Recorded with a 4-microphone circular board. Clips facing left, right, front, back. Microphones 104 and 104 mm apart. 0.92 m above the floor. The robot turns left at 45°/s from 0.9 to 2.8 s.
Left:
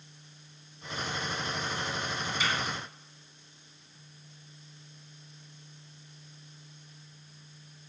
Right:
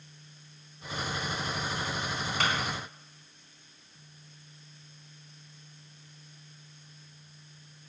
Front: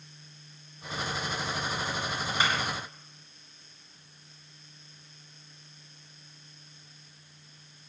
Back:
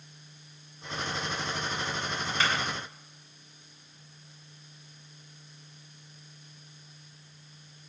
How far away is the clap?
About 6 m.